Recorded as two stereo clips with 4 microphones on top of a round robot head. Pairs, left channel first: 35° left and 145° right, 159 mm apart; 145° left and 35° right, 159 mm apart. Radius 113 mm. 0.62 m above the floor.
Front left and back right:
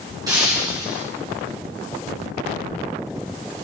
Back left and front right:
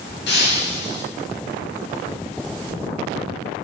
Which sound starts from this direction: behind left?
Breaking glass, at 0.3 s.